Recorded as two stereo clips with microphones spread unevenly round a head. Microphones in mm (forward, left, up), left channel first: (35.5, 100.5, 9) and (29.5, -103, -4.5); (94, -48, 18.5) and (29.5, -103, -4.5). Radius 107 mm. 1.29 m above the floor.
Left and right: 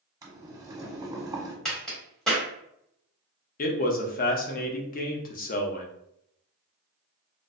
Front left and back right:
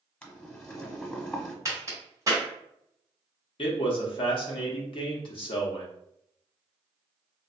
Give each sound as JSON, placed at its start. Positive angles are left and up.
{"t": 0.2, "sound": "boiling", "azimuth_deg": -15, "distance_m": 1.0}
{"t": 1.6, "sound": "a crack", "azimuth_deg": 165, "distance_m": 1.1}
{"t": 3.6, "sound": "a man speaking", "azimuth_deg": 55, "distance_m": 0.5}